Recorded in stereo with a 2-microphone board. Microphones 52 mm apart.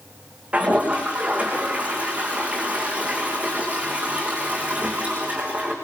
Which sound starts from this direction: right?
A toilet flushing, at 0.5 s.